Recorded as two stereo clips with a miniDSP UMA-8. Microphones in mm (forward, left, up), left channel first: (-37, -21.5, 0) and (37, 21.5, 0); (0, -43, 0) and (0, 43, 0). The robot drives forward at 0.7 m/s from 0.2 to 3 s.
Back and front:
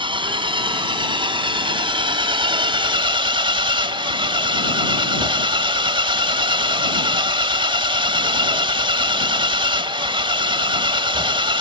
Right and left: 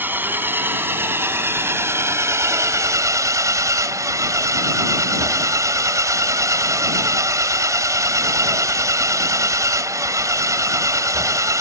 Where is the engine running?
20° left; by 11.6 s 40° left.